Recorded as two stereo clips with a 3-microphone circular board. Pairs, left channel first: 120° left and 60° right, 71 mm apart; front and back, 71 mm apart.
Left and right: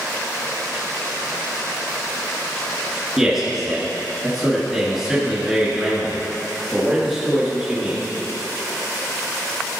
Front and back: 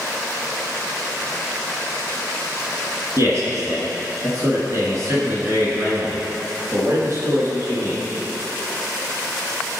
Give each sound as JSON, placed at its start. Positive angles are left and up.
{"t": 3.2, "sound": "a man speaking", "azimuth_deg": -145, "distance_m": 2.0}